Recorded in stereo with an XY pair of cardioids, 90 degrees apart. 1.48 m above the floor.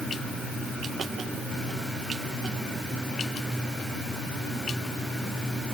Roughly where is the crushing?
No crushing in this recording.